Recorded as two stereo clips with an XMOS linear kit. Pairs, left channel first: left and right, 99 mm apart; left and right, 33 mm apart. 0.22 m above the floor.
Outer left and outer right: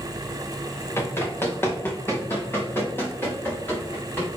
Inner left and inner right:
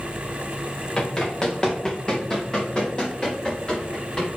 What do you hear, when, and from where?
1.0 s running footsteps: 25° left (ahead or behind), 1.9 m